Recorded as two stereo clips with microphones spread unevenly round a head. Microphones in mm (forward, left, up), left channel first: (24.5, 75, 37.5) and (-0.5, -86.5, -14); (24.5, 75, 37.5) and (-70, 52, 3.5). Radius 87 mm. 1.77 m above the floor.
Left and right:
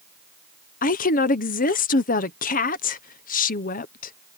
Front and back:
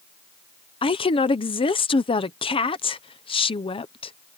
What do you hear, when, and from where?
0.8 s a woman speaking: 40° left